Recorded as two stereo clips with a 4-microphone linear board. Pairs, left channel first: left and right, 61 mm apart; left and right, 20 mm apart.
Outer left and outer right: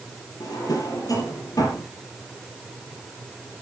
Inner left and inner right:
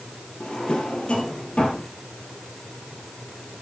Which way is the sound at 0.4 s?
80° left.